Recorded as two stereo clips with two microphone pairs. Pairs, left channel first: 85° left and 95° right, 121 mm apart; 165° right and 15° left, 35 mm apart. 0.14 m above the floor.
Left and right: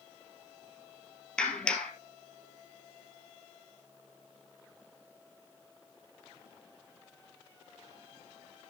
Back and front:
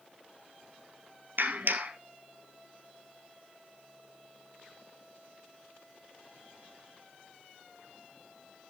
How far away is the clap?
About 2.5 m.